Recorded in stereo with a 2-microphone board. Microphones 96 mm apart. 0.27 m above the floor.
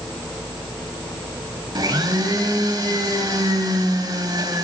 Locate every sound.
1.8 s a blender: 45° right (ahead or behind), 1.0 m